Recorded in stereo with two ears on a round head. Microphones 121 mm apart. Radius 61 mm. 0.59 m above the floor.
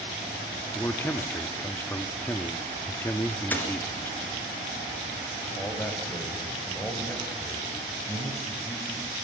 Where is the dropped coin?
15° left (ahead or behind), 3 m.